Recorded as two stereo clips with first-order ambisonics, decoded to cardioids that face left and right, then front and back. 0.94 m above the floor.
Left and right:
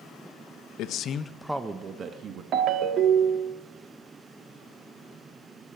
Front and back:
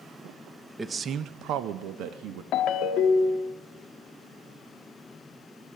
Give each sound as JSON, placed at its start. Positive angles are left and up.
{"t": 0.8, "sound": "a man speaking", "azimuth_deg": 105, "distance_m": 0.6}
{"t": 2.5, "sound": "a ringtone", "azimuth_deg": -40, "distance_m": 0.7}